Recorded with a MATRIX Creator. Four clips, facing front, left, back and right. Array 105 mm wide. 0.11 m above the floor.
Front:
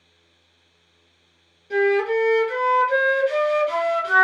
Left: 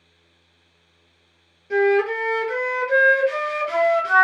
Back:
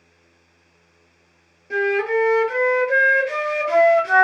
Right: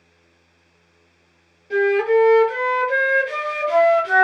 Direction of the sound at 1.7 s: 150° left.